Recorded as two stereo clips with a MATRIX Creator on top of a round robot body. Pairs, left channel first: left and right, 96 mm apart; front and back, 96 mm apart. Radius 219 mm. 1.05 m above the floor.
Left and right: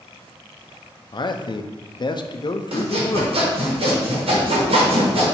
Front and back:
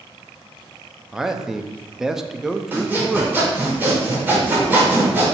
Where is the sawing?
110° right, 1.2 m.